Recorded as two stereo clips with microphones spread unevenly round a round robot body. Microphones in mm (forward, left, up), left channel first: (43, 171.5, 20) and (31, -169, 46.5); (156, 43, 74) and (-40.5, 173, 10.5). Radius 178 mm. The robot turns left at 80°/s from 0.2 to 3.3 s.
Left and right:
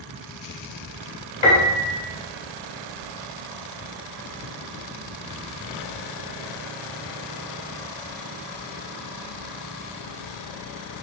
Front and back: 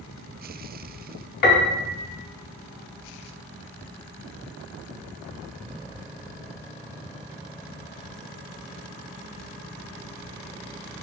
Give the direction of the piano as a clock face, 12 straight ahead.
12 o'clock.